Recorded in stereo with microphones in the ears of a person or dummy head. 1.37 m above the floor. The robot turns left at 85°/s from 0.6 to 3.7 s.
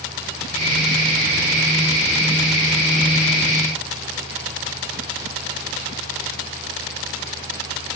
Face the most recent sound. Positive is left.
No sound to turn to.